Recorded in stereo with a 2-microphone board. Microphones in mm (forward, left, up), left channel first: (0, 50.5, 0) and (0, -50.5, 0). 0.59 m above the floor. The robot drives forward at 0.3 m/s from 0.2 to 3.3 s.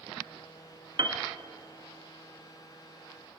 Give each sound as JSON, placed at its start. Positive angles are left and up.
{"t": 1.0, "sound": "a piano", "side_deg": -50, "distance_m": 1.5}